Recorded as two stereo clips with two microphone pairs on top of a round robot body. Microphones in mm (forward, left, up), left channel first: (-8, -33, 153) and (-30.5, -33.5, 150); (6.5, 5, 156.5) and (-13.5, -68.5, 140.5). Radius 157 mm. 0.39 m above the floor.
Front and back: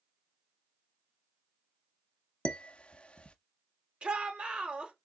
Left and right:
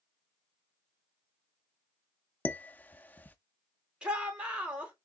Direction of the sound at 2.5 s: Straight ahead.